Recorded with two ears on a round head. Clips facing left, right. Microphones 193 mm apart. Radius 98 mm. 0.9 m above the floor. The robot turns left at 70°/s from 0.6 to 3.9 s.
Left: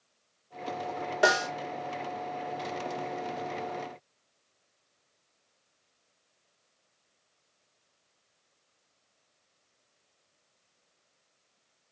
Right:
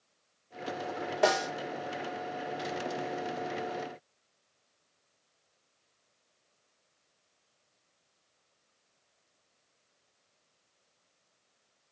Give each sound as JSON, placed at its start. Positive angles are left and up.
{"t": 1.2, "sound": "a snare drum", "side_deg": 10, "distance_m": 0.7}